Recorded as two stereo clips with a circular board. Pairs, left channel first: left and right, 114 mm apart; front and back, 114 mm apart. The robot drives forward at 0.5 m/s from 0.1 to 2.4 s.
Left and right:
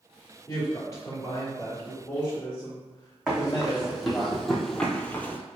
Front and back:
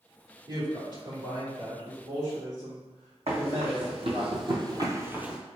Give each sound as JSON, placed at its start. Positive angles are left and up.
{"t": 0.5, "sound": "a woman speaking", "azimuth_deg": 140, "distance_m": 1.8}
{"t": 3.3, "sound": "running footsteps", "azimuth_deg": -175, "distance_m": 1.5}